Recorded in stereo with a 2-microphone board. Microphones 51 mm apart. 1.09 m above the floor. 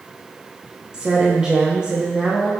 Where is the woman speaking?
15° right (ahead or behind), 0.6 m.